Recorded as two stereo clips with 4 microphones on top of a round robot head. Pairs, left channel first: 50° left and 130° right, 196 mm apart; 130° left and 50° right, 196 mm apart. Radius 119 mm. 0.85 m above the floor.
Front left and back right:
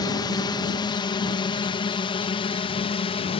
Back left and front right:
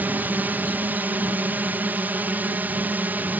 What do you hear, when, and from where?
0.0 s a drone: 20° left; by 3.4 s 25° left